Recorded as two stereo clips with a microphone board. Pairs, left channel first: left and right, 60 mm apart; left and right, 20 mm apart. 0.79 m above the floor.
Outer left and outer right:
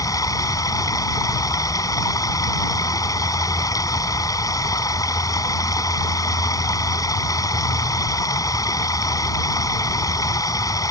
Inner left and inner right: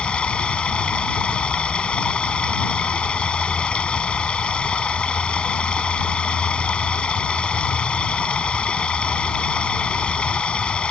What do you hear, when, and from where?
0.0 s running water: 85° left